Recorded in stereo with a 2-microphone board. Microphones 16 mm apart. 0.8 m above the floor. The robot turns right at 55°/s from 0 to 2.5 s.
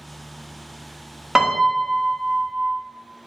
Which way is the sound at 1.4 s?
135° right.